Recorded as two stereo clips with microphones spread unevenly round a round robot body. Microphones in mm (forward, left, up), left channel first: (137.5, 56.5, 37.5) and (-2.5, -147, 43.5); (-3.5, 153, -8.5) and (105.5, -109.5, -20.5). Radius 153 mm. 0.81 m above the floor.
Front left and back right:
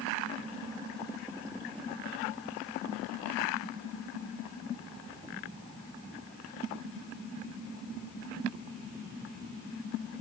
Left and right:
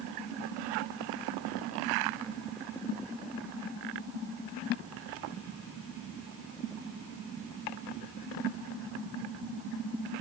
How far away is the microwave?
I don't hear a microwave.